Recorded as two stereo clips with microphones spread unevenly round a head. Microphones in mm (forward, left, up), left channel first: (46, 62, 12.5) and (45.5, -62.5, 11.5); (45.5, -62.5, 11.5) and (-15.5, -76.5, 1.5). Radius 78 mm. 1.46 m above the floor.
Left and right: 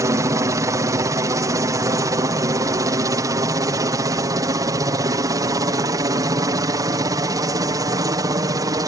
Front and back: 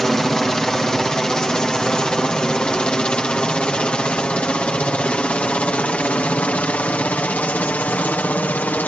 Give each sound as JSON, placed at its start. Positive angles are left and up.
{"t": 0.0, "sound": "a helicopter", "azimuth_deg": -75}